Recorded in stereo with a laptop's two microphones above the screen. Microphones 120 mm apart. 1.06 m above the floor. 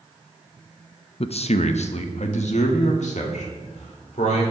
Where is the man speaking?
55° left (ahead or behind), 0.5 m; by 4.4 s 75° left (ahead or behind), 3 m.